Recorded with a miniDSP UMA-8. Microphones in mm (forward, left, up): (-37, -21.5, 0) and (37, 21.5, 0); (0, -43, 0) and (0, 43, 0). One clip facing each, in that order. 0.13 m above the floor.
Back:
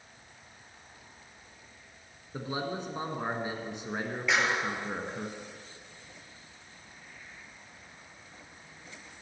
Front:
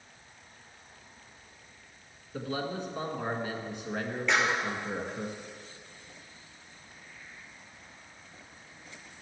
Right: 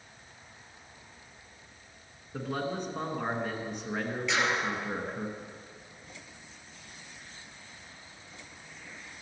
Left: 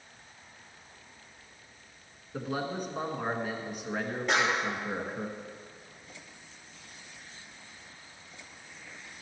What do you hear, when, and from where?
2.3 s a man speaking: 170° left, 1.4 m
4.3 s a clap: 125° left, 2.5 m